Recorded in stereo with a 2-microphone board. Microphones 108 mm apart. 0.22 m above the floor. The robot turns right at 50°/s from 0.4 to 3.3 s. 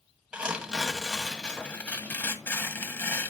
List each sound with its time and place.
0.3 s tearing paper: 10° right (ahead or behind), 1.3 m; by 3.3 s 20° left (ahead or behind), 1.3 m